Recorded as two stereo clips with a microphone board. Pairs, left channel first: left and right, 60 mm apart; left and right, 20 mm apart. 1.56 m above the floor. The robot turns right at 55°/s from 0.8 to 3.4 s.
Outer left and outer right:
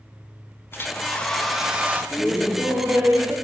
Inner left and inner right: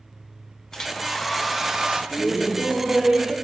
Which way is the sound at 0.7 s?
145° left.